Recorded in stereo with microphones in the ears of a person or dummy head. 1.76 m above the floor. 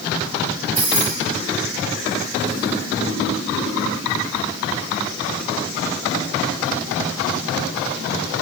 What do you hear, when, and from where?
0.8 s keys jangling: 45° right (ahead or behind), 6 m